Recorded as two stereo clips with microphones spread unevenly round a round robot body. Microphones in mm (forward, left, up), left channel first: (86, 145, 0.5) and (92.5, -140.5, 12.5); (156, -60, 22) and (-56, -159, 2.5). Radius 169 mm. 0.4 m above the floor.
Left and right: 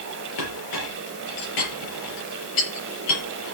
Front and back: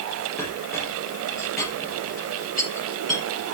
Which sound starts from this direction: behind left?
A clink, at 0.4 s.